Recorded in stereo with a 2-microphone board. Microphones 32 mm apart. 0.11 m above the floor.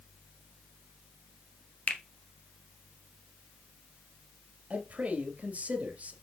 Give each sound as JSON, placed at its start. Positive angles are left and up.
{"t": 1.9, "sound": "a finger snap", "side_deg": 45, "distance_m": 1.5}
{"t": 4.7, "sound": "a man speaking", "side_deg": -45, "distance_m": 2.5}